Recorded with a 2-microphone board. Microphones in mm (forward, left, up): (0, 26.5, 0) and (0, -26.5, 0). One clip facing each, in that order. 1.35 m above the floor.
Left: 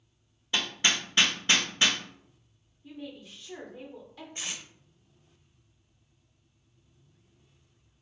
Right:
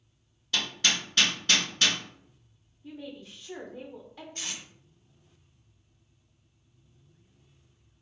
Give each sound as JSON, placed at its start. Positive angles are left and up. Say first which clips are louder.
{"t": 0.5, "sound": "hammering", "louder": "left 1 dB", "side_deg": 25, "distance_m": 0.6}
{"t": 2.8, "sound": "a woman speaking", "louder": "right 1 dB", "side_deg": -15, "distance_m": 0.6}
{"t": 4.3, "sound": "tape being pulled", "louder": "left 1 dB", "side_deg": 15, "distance_m": 0.7}